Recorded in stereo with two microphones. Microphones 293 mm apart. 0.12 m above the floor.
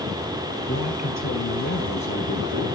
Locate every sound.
0.7 s a man speaking: 55° left (ahead or behind), 2 m; by 2.8 s 75° left (ahead or behind), 4 m